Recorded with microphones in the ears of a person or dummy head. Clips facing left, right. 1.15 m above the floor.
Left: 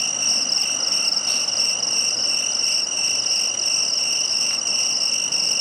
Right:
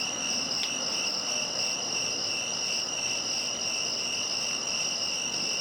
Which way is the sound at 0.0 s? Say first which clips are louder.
Left 2 dB; 45° left (ahead or behind).